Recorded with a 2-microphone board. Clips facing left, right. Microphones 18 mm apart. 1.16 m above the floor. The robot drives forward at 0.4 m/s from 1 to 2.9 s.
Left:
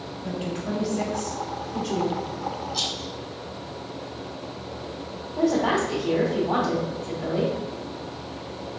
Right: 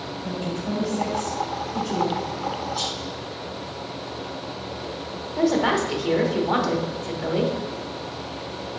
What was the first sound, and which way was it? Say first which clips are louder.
A woman speaking: right 1 dB; 50° left (ahead or behind).